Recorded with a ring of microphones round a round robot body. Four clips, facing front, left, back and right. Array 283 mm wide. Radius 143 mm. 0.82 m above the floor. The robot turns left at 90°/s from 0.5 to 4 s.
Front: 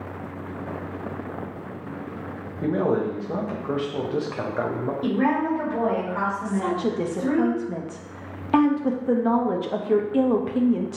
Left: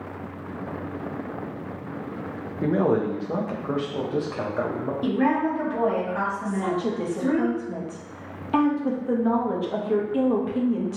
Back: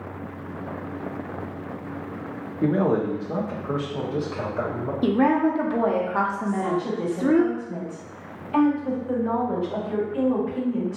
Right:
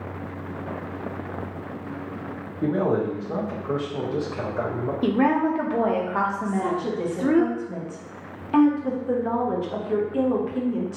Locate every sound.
2.6 s a man speaking: 140° left, 0.6 m; by 4.9 s 15° left, 0.6 m
5.0 s a woman speaking: 130° right, 0.7 m
6.5 s a woman speaking: 5° left, 0.6 m